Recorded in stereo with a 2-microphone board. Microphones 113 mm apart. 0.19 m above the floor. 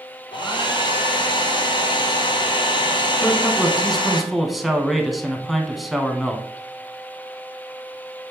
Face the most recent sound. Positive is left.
turn(degrees=0)  # may be behind; listen again after turning